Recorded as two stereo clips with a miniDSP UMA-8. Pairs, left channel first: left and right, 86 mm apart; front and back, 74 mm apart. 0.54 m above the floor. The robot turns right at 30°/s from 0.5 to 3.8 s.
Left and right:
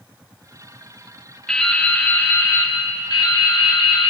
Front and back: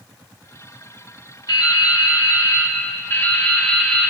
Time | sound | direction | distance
1.5 | dripping | 5° left | 1.6 m